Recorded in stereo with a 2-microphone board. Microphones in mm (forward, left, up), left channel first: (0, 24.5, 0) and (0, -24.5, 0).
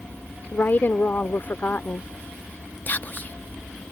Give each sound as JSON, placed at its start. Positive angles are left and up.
{"t": 0.5, "sound": "a woman speaking", "side_deg": 50}
{"t": 2.9, "sound": "whispering", "side_deg": 40}